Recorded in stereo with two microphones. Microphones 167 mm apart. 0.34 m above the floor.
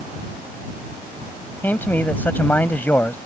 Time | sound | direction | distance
1.6 | a man speaking | 10° left (ahead or behind) | ?